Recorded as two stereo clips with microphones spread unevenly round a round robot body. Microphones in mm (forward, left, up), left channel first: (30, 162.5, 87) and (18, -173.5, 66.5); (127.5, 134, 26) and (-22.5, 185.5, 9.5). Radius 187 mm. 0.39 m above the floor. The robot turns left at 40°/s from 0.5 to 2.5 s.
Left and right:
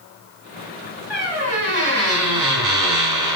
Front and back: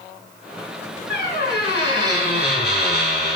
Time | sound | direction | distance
1.1 | a squeak | 10° right | 3.5 m